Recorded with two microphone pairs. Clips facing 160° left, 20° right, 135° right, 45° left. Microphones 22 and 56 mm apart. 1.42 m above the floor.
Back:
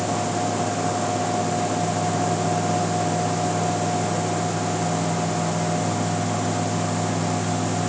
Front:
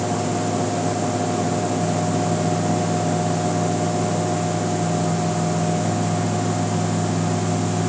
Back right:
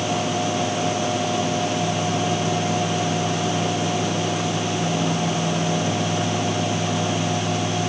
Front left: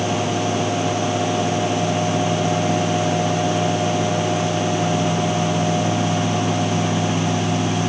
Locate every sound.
Only background noise.